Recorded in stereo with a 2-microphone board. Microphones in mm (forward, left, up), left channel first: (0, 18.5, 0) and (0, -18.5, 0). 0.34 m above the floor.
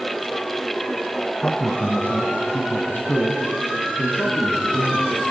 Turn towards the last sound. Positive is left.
turn(degrees=75)  # may be behind; listen again after turning